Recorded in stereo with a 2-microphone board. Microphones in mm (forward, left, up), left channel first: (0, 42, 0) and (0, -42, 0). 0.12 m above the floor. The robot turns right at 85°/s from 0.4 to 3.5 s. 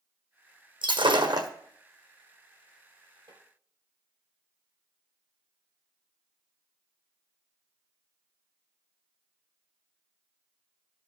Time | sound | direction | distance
0.8 | breaking glass | 105° right | 1.4 m
3.3 | tapping | 65° right (ahead or behind) | 2 m